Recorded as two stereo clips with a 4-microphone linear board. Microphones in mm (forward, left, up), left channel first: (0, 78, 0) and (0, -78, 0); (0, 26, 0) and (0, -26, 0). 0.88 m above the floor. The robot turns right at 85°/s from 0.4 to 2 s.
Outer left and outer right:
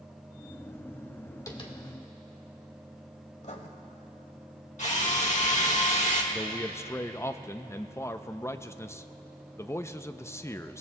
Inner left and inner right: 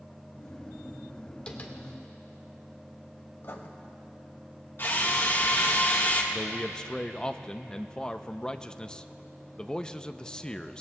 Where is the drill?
50° left (ahead or behind), 1.6 m.